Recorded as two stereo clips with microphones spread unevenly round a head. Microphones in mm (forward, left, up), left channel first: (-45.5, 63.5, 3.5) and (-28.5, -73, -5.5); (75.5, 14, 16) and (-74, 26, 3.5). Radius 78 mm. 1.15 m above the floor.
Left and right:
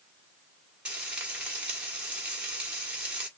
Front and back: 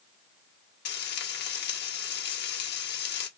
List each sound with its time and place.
0.8 s frying: 5° left, 1.5 m